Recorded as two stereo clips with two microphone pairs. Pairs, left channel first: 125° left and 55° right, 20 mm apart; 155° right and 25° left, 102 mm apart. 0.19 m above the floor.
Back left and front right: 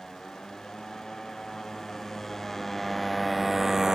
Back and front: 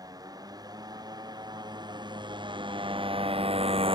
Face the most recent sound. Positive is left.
turn(degrees=5)